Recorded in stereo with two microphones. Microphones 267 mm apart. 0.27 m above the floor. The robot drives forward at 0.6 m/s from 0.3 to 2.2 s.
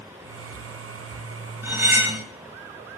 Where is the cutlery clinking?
10° right (ahead or behind), 0.8 m.